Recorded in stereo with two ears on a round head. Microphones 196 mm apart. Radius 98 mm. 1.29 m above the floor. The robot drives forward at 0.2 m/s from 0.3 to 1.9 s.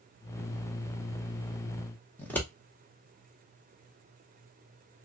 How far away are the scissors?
About 0.9 m.